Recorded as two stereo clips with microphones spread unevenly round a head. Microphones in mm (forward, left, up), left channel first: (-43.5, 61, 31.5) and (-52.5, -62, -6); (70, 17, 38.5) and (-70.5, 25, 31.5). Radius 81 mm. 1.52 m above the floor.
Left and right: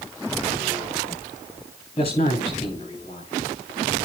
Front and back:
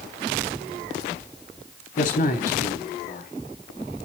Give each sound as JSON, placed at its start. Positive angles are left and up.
{"t": 2.0, "sound": "a man speaking", "azimuth_deg": 30, "distance_m": 3.5}